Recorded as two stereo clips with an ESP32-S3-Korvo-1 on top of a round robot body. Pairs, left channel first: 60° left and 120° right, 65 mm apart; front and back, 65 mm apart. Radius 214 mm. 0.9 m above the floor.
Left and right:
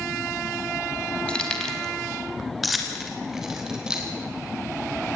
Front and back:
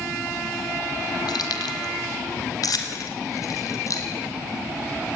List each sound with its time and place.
1.3 s keys jangling: 15° right, 2 m; by 4.1 s 40° right, 3 m